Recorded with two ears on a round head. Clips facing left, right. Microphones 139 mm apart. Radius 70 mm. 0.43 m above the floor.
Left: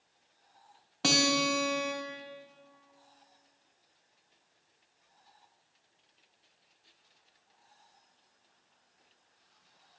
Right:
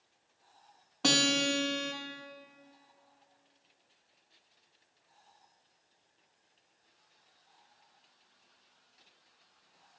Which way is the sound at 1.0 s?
5° left (ahead or behind).